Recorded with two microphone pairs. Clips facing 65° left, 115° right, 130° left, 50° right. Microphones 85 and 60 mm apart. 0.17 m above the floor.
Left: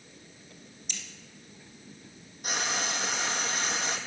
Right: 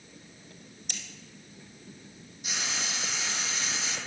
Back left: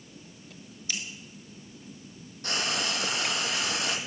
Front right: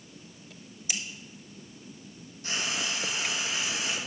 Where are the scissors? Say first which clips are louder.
Right 1 dB, even; 125° right, 1.2 m.